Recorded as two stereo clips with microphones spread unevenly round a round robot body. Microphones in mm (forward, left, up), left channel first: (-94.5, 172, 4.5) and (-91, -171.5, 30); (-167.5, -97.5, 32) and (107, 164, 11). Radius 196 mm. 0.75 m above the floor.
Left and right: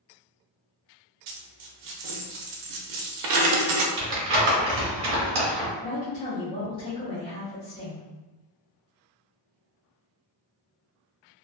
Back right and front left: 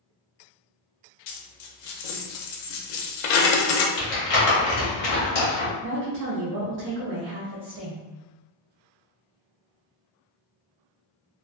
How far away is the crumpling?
About 1.0 m.